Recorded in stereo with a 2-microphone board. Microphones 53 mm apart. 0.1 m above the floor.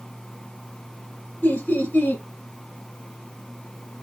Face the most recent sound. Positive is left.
turn(degrees=20)  # may be behind; listen again after turning